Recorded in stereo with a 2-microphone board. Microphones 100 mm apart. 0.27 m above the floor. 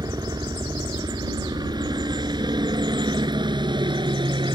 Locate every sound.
0.0 s a helicopter: 40° right (ahead or behind); by 4.5 s 50° right (ahead or behind)